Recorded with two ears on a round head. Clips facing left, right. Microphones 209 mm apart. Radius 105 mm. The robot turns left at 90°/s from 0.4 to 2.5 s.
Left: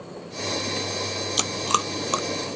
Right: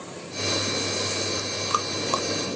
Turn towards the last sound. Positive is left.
turn(degrees=-15)  # may be behind; listen again after turning